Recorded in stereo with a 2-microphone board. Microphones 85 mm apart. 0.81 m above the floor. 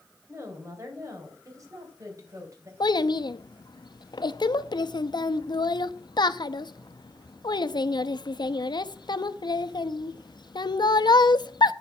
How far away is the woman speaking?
About 3 m.